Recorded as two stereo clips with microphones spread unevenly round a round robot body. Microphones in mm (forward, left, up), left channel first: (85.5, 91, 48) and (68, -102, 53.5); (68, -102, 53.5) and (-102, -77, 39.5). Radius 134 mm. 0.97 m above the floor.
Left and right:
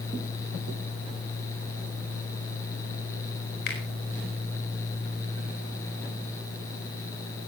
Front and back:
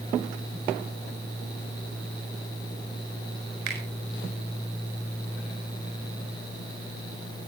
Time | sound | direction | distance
3.7 | a finger snap | 135° left | 4.5 m